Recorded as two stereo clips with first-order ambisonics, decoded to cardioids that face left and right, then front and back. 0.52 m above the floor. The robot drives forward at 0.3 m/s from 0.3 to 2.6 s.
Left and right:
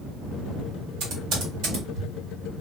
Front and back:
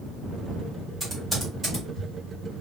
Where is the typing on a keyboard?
95° right, 1.5 m; by 2.1 s 110° right, 1.6 m.